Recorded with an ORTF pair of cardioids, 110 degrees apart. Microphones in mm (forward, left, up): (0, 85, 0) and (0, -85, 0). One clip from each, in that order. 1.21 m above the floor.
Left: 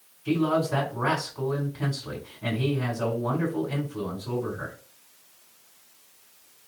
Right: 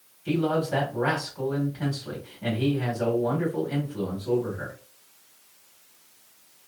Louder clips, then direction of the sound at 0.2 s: Left 1 dB; 5° right.